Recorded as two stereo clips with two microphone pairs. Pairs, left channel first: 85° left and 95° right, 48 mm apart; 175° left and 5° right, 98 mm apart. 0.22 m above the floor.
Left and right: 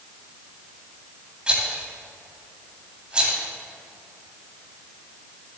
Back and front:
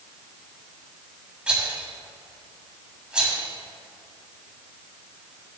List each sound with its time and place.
1.5 s a rattle: 65° right, 1.7 m